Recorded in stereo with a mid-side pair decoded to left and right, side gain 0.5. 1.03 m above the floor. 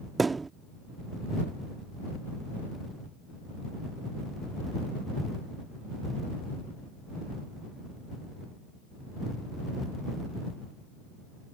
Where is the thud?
25° right.